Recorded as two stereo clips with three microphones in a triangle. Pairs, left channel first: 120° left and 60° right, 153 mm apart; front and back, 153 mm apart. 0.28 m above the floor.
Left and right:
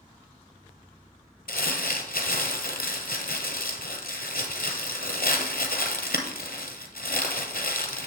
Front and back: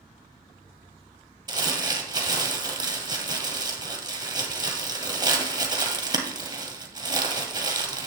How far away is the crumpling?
About 1.4 m.